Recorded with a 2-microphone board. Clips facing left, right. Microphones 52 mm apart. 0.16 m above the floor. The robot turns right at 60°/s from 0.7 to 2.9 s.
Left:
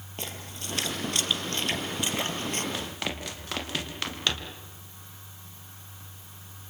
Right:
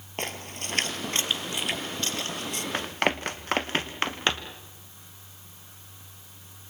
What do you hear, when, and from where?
0.2 s a splash: 60° right (ahead or behind), 2.5 m; by 2.6 s 45° left (ahead or behind), 2.5 m
2.7 s running footsteps: 50° right (ahead or behind), 2 m; by 4.6 s 35° right (ahead or behind), 3.5 m